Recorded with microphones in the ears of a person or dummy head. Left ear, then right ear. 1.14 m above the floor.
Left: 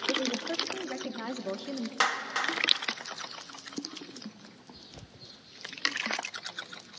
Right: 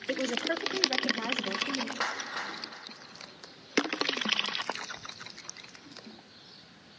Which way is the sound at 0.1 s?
60° right (ahead or behind).